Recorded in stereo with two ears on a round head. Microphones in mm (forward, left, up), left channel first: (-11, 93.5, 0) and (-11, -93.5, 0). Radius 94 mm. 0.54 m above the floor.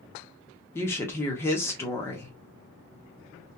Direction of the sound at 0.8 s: 10° left (ahead or behind).